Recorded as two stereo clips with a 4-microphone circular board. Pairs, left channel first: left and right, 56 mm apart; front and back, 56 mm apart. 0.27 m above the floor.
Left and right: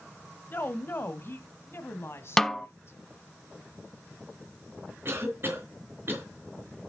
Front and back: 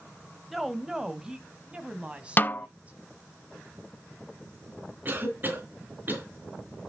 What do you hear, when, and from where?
0.5 s a woman speaking: 95° left, 1.2 m; by 3.0 s 120° left, 2 m
2.4 s a snare drum: 10° left, 0.5 m
5.0 s a cough: 130° right, 3.5 m